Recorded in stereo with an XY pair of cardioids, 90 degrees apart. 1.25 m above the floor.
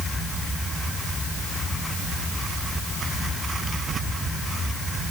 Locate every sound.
Only background noise.